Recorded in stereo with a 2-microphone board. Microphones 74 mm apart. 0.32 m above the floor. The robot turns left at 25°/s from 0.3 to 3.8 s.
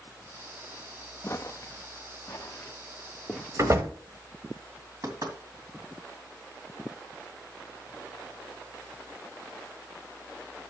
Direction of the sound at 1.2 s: 35° left (ahead or behind).